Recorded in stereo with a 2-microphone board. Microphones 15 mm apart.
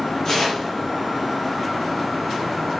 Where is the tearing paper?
30° left (ahead or behind), 5.5 m.